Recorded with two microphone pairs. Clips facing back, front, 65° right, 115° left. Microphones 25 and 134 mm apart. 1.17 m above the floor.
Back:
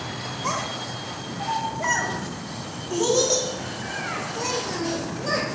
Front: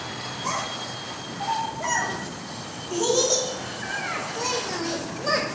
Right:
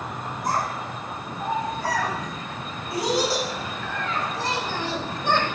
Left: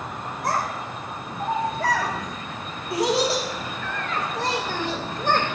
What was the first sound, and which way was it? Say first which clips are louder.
A child speaking: back 1 dB, even; 125° left.